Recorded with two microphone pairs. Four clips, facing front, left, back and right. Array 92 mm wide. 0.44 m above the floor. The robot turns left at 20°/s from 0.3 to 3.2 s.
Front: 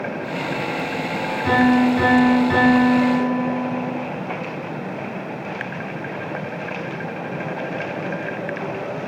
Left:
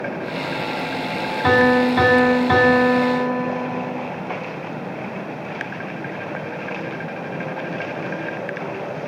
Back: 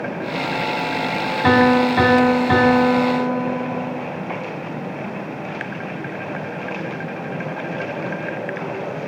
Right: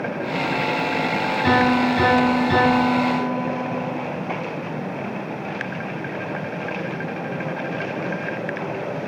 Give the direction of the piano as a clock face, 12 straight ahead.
7 o'clock.